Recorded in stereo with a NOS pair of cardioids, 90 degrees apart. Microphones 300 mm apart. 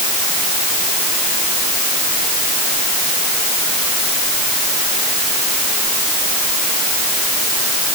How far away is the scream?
I don't hear a scream.